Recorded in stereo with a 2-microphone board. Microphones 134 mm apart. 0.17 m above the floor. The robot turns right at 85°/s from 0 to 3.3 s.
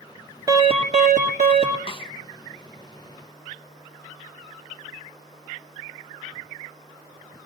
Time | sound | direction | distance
0.5 | an alarm | 155° right | 2 m
1.9 | a snare drum | 40° left (ahead or behind) | 1.4 m